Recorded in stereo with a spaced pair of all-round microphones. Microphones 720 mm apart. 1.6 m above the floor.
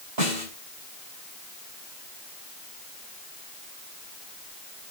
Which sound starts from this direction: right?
A snare drum, at 0.2 s.